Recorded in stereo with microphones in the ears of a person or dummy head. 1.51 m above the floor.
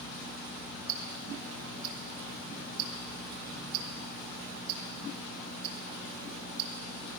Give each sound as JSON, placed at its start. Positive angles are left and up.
{"t": 0.9, "sound": "ticking", "side_deg": -75, "distance_m": 2.0}